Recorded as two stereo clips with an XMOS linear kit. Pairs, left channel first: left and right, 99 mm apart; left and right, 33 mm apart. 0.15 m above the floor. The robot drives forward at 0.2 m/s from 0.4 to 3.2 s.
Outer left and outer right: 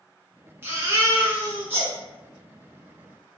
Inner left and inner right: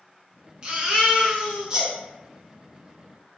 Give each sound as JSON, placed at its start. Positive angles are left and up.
{"t": 0.6, "sound": "a baby crying", "side_deg": -25, "distance_m": 0.9}